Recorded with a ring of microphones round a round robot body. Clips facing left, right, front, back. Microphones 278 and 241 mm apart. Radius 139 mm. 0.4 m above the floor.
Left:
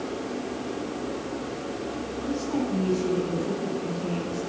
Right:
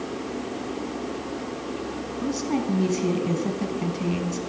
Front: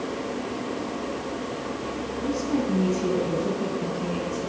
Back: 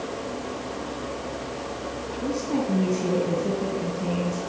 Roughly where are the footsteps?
No footsteps in this recording.